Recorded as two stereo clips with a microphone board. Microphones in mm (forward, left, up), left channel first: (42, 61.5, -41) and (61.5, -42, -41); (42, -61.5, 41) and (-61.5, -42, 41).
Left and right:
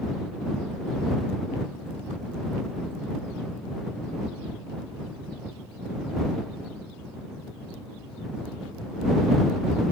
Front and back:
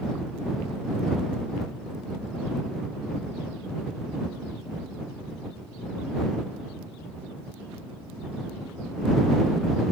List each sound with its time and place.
Only background noise.